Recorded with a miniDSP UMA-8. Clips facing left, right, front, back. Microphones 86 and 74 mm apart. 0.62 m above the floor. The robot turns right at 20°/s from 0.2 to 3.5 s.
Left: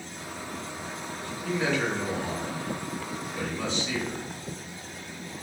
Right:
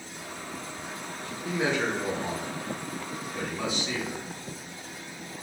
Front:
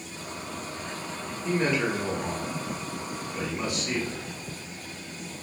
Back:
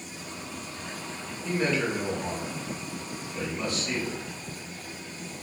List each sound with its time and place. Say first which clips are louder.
1.4 s a man speaking: even, front 1 dB; 65° right, 0.8 m; by 4.2 s 25° right, 0.8 m